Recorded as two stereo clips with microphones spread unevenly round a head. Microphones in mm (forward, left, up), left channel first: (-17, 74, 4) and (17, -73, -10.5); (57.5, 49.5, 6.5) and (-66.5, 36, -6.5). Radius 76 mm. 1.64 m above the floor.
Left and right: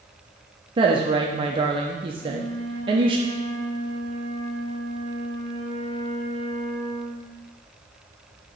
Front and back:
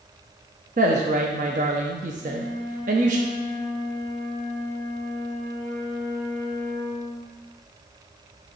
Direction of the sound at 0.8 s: 135° right.